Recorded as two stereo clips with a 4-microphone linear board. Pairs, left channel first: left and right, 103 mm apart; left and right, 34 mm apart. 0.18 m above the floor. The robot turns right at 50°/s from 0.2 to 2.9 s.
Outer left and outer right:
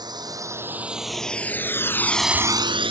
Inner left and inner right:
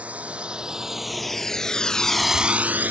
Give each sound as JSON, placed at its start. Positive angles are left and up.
{"t": 0.0, "sound": "a drone", "side_deg": -40}